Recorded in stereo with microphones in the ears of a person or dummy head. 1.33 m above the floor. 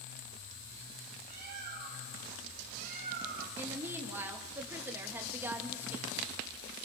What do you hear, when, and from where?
1.3 s a bird: 45° right (ahead or behind), 3 m
3.6 s a woman speaking: 15° right (ahead or behind), 2 m